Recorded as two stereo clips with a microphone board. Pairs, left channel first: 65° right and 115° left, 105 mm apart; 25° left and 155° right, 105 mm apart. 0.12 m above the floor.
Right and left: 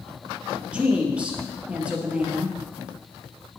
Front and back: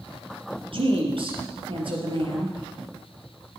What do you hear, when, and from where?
0.7 s a woman speaking: 170° right, 3 m